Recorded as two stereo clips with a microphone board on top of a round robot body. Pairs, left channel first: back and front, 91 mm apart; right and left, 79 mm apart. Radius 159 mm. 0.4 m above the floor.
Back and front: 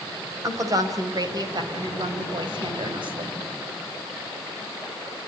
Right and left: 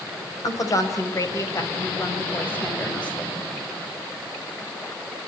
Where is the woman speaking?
50° right, 3.5 m; by 3.4 s 15° right, 3.5 m.